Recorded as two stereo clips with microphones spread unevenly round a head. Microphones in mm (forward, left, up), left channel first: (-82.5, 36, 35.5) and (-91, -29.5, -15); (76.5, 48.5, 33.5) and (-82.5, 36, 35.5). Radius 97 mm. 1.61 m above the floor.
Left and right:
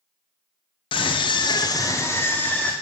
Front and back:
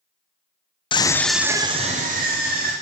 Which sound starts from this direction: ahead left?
A scream, at 0.9 s.